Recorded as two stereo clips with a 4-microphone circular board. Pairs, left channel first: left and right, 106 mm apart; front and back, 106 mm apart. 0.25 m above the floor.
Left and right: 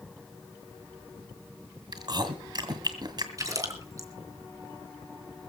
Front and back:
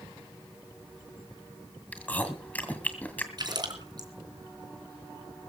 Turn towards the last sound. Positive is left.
turn(degrees=-140)